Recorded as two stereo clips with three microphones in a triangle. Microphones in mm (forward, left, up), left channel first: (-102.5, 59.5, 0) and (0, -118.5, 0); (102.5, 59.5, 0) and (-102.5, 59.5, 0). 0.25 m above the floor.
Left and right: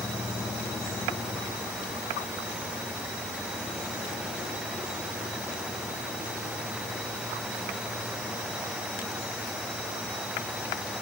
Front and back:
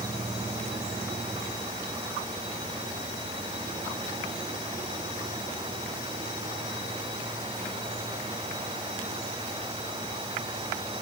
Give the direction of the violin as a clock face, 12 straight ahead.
No violin in this recording.